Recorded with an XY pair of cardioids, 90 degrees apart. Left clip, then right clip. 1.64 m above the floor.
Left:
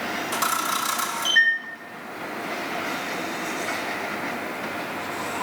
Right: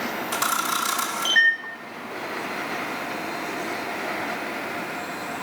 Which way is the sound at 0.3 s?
20° right.